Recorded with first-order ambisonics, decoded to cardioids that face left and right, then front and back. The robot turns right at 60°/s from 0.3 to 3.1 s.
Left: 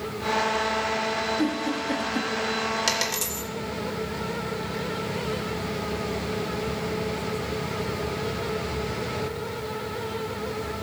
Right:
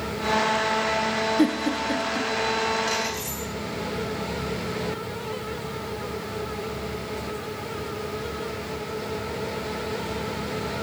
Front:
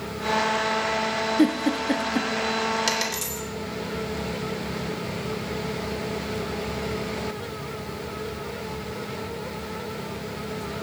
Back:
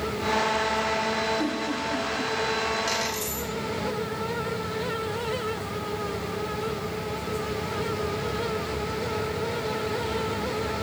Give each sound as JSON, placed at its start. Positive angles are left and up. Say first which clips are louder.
{"t": 1.4, "sound": "a giggle", "louder": "right 3 dB, front 5 dB", "azimuth_deg": -30, "distance_m": 1.6}
{"t": 2.9, "sound": "a dropped coin", "louder": "left 1 dB, front 2 dB", "azimuth_deg": 50, "distance_m": 3.0}